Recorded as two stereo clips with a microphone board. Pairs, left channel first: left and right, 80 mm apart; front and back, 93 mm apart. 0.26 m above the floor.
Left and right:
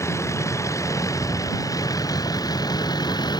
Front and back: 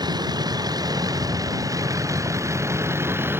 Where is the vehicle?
140° left; by 3.4 s 115° left.